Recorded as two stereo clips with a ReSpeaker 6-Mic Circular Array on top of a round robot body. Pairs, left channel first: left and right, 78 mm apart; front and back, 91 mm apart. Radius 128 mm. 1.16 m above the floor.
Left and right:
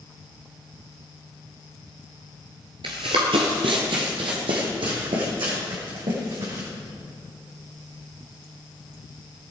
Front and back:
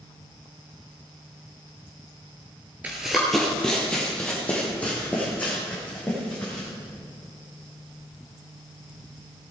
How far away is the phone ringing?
No phone ringing in this recording.